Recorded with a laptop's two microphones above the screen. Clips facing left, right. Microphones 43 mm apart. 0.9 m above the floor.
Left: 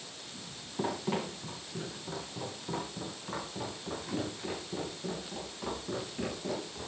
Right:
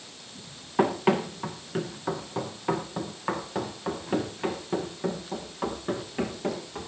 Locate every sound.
0.8 s running footsteps: 75° right (ahead or behind), 5 m; by 6.9 s 50° right (ahead or behind), 9 m